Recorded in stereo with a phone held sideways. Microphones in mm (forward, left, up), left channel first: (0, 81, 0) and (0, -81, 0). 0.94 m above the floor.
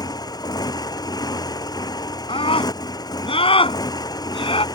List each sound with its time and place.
0.0 s a motorcycle: 25° left (ahead or behind)
2.3 s a scream: 35° left (ahead or behind)